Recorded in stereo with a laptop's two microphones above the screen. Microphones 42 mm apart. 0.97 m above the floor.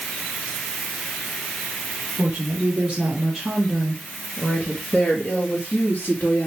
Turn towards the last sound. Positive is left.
turn(degrees=70)  # may be behind; listen again after turning